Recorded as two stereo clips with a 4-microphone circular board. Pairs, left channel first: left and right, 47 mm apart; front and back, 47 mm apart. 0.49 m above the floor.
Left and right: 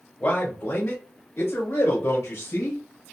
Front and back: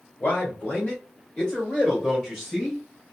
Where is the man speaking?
40° left, 1.6 m; by 2.8 s 90° left, 1.9 m.